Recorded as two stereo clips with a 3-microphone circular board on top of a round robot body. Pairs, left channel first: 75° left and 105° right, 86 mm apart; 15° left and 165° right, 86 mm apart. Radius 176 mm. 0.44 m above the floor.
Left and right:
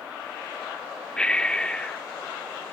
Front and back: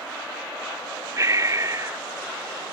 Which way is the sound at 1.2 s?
150° left.